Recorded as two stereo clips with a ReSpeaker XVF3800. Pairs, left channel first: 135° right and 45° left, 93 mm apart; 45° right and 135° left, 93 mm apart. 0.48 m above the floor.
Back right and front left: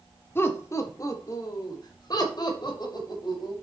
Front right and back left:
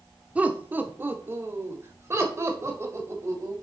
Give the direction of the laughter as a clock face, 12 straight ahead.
6 o'clock.